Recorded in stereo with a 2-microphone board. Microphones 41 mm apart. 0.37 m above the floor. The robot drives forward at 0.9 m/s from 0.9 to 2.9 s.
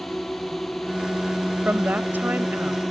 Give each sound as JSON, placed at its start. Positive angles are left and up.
{"t": 0.0, "sound": "a drone", "side_deg": 5}
{"t": 1.6, "sound": "a woman speaking", "side_deg": -50}